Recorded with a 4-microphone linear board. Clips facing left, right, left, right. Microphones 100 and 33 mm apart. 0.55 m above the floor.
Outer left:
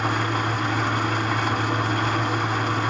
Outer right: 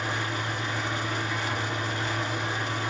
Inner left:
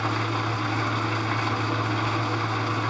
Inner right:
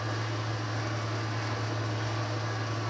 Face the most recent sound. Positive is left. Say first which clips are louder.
# outer left 7 dB, inner left 8 dB
turn(degrees=65)  # may be behind; listen again after turning